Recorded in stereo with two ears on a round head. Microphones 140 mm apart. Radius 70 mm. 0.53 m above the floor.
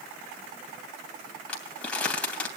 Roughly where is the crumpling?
Centre.